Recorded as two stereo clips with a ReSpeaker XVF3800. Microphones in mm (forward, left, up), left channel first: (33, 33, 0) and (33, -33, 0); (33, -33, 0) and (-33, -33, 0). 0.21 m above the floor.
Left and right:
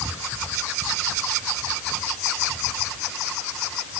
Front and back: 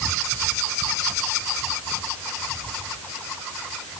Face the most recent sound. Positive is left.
No sound to turn to.